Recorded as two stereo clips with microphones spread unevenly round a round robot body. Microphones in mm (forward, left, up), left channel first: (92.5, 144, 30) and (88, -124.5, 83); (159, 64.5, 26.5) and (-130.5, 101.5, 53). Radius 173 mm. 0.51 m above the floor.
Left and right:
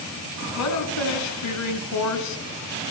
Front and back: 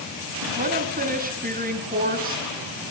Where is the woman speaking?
110° left, 5 m.